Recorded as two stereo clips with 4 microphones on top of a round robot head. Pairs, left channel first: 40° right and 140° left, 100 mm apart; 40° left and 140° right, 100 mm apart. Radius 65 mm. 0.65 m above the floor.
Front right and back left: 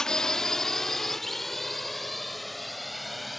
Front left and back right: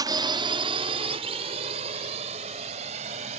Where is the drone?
120° right; by 3.4 s 130° right.